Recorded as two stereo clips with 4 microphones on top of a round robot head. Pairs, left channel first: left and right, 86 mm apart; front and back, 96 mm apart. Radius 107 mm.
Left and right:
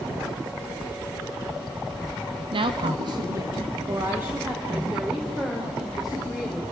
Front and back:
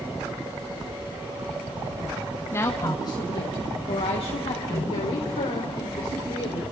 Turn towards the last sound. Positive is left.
turn(degrees=0)